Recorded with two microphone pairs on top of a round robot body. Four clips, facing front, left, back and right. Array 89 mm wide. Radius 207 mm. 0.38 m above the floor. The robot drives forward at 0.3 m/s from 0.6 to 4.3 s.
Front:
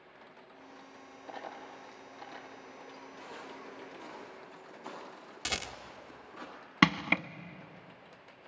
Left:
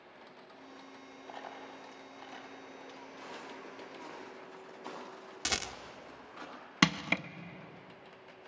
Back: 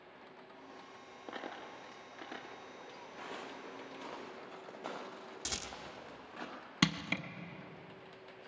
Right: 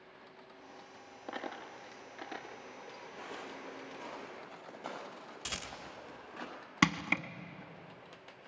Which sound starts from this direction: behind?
Footsteps, at 3.2 s.